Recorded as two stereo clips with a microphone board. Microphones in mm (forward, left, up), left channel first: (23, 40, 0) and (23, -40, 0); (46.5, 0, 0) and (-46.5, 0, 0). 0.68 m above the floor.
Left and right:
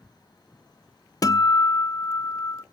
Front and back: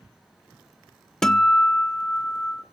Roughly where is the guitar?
Left.